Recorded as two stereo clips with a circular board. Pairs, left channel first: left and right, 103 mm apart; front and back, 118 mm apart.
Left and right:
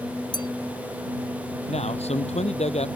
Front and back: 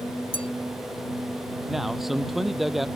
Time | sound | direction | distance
0.3 | a clink | 45° left | ?
1.7 | a man speaking | 90° left | ?